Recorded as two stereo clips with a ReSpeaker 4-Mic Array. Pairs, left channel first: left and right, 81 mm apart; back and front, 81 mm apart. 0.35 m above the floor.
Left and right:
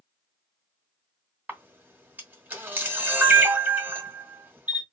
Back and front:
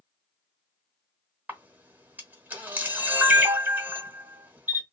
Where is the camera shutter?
45° right, 1.0 m.